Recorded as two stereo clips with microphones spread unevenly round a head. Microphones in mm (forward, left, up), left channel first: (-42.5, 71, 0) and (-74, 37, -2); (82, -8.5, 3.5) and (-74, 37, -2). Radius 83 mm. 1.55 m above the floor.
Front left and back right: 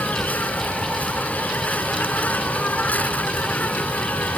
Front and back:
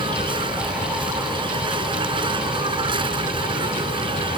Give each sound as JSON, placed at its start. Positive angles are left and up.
{"t": 0.0, "sound": "an insect", "azimuth_deg": 105}